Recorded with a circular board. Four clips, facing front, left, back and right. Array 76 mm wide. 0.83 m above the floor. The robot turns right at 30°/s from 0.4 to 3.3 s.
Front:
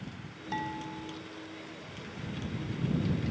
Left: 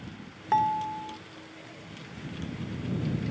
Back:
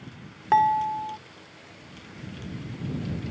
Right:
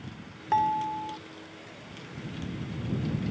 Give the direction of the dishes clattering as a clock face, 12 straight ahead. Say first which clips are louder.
Even, back 16 dB; 6 o'clock.